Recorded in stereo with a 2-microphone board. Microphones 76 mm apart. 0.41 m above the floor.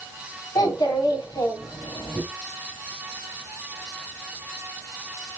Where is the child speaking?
70° left (ahead or behind), 1.2 m.